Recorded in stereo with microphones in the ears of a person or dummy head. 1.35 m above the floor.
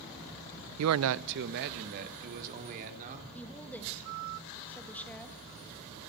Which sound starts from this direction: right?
A man speaking, at 0.8 s.